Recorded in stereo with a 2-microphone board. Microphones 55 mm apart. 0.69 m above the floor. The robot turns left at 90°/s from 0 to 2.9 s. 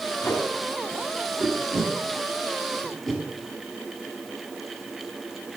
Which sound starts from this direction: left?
Tape being pulled, at 0.2 s.